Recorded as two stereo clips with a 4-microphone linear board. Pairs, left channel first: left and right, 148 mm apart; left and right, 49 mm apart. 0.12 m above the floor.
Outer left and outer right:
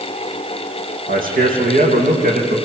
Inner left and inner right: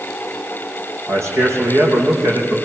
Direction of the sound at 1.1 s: 75° right (ahead or behind).